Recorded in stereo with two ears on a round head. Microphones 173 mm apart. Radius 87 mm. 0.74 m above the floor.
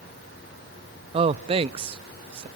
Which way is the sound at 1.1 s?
30° right (ahead or behind).